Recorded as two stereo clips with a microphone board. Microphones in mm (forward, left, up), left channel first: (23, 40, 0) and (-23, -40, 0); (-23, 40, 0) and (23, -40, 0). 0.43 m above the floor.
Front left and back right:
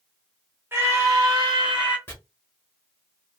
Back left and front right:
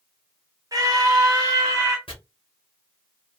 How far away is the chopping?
About 1.7 m.